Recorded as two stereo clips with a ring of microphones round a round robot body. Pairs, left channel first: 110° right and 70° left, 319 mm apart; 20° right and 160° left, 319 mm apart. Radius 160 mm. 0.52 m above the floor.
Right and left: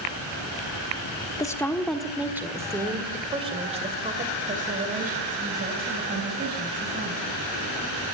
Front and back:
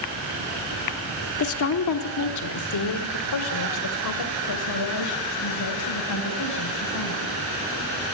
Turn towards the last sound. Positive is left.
turn(degrees=10)